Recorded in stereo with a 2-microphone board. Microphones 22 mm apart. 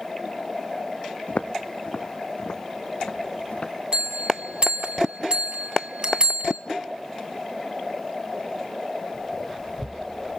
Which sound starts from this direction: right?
A bell, at 3.9 s.